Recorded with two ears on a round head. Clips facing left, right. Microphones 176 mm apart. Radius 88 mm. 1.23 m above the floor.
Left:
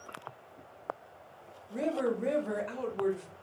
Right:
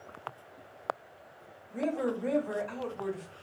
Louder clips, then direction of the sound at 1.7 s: Even; 75° left (ahead or behind).